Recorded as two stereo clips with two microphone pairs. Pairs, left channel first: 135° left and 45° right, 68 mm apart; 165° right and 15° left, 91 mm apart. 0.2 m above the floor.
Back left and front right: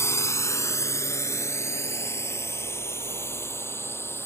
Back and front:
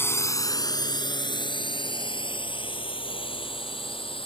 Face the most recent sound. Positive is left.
turn(degrees=-175)